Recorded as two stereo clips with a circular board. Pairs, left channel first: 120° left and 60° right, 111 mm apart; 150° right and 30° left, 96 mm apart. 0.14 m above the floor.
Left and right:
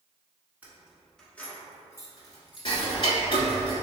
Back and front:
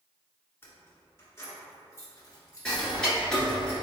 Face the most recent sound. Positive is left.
turn(degrees=130)